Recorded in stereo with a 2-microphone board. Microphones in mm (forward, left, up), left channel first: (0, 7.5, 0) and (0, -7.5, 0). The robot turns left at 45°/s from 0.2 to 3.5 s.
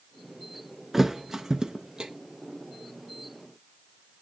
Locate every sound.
0.9 s a thud: 20° right (ahead or behind), 0.6 m; by 2.1 s 55° right (ahead or behind), 0.6 m